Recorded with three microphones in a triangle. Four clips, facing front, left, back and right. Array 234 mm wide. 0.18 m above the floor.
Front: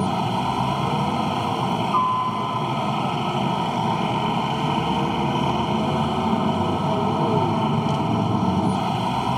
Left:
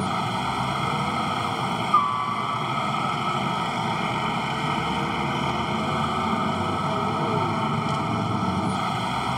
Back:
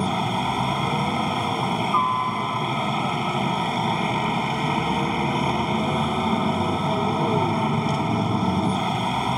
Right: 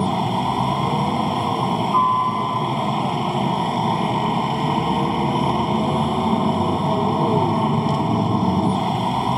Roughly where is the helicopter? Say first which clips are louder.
Right 5 dB, front 1 dB; right.